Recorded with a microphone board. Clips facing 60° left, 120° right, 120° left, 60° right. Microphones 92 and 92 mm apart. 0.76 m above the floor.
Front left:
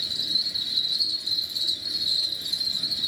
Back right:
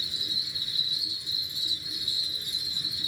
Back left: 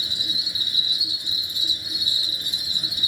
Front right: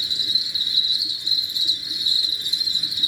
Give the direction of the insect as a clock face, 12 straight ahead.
10 o'clock.